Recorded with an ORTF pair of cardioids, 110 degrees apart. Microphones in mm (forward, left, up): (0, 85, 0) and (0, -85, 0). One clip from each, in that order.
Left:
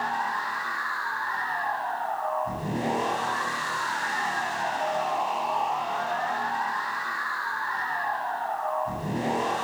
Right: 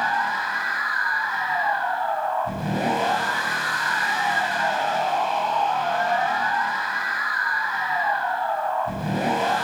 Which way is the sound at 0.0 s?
45° right.